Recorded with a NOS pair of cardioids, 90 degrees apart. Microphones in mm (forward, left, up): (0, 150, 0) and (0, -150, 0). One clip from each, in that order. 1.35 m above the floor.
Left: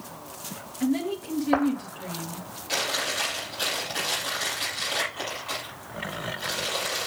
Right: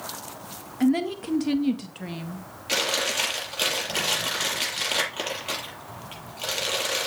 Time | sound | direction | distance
0.8 | a woman speaking | 50° right | 2 m
2.7 | chewing | 60° right | 6.5 m